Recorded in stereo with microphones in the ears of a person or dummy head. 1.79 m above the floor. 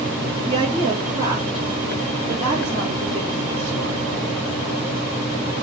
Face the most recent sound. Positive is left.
turn(degrees=-35)  # may be behind; listen again after turning